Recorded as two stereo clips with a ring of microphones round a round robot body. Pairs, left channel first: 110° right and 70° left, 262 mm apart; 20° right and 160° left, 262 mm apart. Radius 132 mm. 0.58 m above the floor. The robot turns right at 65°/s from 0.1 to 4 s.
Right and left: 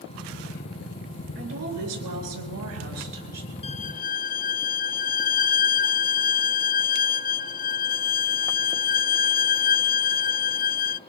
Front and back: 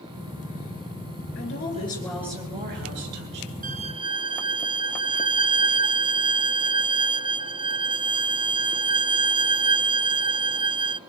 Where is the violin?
165° right, 0.5 m; by 11.0 s 145° right, 0.5 m.